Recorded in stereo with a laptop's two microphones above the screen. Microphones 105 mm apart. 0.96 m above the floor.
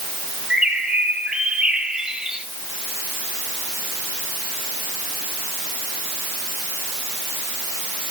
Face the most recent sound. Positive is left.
turn(degrees=-5)  # may be behind; listen again after turning